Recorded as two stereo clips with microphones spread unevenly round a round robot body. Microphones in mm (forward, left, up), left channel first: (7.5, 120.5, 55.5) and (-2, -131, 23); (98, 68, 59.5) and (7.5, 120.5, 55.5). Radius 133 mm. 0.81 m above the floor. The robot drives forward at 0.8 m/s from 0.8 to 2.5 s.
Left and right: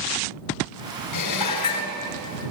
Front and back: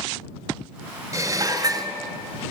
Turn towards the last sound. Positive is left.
turn(degrees=105)